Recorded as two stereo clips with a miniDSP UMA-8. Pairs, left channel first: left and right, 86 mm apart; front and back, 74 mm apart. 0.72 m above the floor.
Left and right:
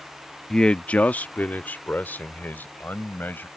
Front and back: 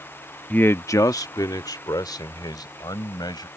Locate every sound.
0.5 s a man speaking: 15° left; by 3.5 s 20° left